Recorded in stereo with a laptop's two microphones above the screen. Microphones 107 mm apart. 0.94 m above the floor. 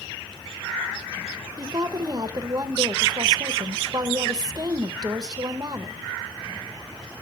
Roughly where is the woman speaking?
Right.